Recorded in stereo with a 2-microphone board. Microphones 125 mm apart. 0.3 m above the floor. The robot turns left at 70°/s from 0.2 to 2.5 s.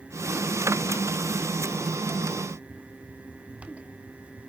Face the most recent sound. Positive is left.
No sound to turn to.